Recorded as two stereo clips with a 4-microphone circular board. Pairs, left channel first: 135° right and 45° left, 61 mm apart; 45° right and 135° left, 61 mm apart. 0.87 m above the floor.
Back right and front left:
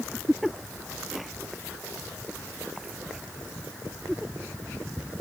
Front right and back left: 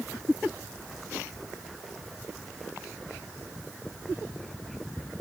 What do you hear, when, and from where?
Only background noise.